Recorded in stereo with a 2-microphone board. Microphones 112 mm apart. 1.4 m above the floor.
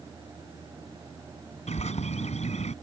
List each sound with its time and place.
1.7 s a bird: 80° left